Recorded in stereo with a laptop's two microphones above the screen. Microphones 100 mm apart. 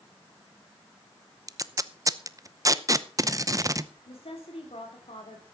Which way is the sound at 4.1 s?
75° left (ahead or behind).